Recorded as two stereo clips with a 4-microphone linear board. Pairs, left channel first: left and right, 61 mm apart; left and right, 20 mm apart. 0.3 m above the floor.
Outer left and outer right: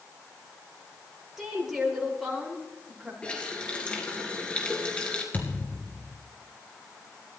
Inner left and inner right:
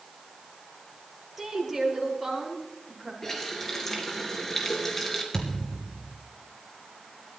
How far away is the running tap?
About 3 m.